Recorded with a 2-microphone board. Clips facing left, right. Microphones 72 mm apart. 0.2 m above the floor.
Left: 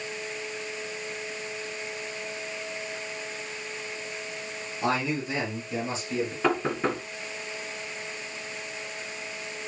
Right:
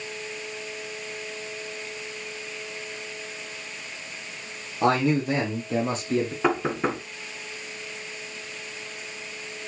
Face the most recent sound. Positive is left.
turn(degrees=-15)  # may be behind; listen again after turning